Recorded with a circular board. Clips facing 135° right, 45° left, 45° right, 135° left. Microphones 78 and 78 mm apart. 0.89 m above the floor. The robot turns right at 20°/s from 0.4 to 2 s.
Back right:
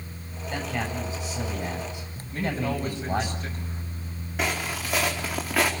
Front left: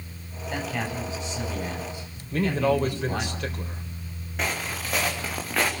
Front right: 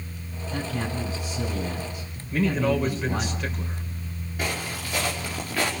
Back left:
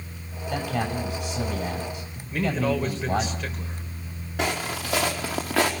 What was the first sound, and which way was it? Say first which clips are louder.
A man speaking: even, back left 3 dB; 125° left.